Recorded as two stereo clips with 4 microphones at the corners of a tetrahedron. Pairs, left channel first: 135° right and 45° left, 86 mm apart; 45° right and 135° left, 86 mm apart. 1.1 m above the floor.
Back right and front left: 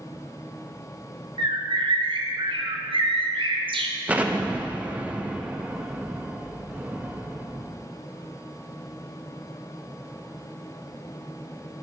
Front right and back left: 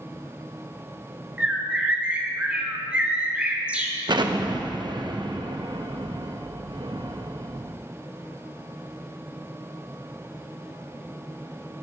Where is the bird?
60° left, 0.9 m.